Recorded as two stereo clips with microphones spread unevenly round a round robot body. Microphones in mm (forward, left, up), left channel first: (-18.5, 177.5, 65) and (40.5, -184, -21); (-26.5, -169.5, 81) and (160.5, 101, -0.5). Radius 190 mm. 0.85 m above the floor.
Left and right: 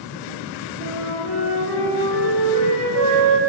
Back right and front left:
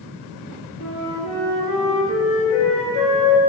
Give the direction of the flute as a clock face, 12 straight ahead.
5 o'clock.